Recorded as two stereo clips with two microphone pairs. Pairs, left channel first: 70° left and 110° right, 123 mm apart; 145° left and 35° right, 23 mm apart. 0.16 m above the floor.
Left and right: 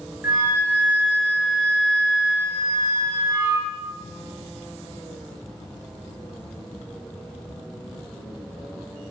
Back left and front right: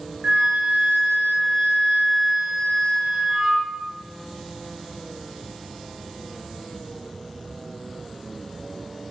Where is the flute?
40° right, 1.6 m.